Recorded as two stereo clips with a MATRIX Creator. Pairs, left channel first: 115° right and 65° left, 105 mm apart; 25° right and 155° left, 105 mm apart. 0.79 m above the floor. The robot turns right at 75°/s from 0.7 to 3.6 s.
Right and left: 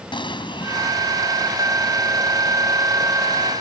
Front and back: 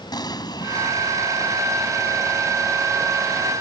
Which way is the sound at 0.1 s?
70° right.